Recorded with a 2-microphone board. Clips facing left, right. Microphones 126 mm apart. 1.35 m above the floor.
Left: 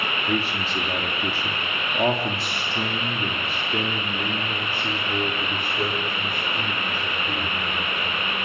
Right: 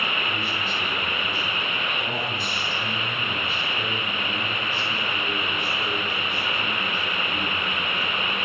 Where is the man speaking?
80° left, 3 m; by 8.2 s 40° left (ahead or behind), 5 m.